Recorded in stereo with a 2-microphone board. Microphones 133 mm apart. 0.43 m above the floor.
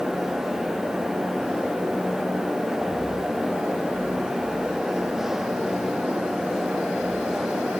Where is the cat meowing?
No cat meowing in this recording.